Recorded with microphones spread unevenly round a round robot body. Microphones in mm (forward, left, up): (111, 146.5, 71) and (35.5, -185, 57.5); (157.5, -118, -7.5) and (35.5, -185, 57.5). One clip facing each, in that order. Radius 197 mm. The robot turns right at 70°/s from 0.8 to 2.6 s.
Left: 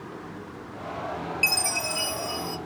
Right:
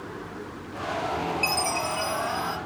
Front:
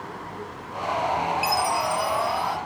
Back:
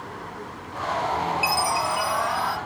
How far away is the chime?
About 0.6 m.